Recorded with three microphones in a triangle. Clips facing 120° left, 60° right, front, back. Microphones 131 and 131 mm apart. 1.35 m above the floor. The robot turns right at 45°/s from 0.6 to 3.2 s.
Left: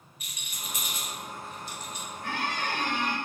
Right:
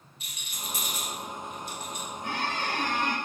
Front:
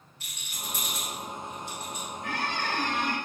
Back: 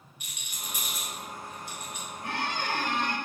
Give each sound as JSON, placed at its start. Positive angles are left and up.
{"t": 0.2, "sound": "a rattle", "azimuth_deg": -110, "distance_m": 0.7}
{"t": 2.2, "sound": "a squeak", "azimuth_deg": -125, "distance_m": 0.6}